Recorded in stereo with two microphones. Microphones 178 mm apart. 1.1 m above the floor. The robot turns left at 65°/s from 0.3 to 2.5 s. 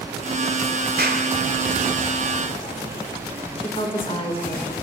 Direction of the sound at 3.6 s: 30° left (ahead or behind).